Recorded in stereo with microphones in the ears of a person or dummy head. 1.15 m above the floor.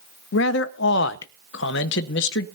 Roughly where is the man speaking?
Left.